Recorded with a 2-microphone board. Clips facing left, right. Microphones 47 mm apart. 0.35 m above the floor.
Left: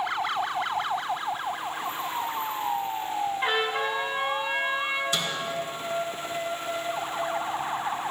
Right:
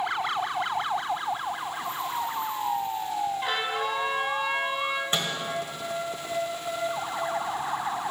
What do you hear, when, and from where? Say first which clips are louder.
3.4 s a trumpet: left 2 dB; 25° left (ahead or behind), 1.3 m
5.1 s a microwave: right 1 dB; 35° right (ahead or behind), 1.3 m